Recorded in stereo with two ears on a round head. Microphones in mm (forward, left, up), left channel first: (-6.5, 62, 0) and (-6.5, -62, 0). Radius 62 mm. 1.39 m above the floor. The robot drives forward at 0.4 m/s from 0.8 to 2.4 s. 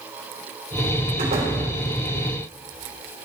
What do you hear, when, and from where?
1.2 s a door slam: 55° right (ahead or behind), 3.5 m